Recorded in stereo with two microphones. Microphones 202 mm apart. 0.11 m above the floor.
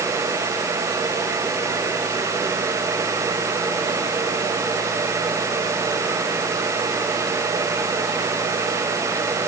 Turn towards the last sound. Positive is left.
No sound to turn to.